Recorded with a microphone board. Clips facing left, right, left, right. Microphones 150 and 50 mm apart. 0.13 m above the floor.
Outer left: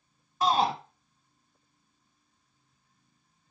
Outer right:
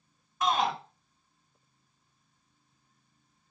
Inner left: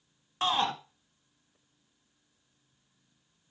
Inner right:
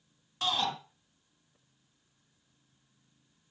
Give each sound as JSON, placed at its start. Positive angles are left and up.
{"t": 0.4, "sound": "a shout", "side_deg": 35, "distance_m": 1.3}